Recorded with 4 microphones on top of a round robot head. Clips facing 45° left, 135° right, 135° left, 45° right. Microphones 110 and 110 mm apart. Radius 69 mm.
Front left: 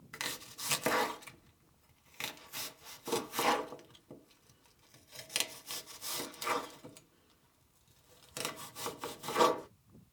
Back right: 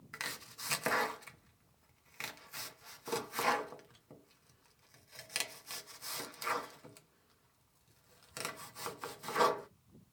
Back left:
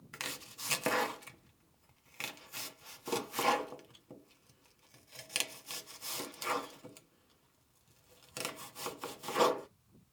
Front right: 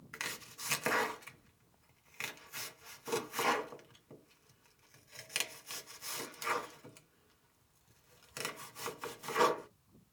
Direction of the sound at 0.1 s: 105° left.